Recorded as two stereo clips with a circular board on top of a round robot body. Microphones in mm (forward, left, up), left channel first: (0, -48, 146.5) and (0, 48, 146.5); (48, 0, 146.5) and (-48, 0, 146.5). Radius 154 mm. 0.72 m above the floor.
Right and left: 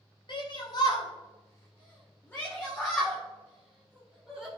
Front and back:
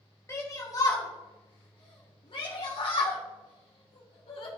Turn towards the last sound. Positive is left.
turn(degrees=0)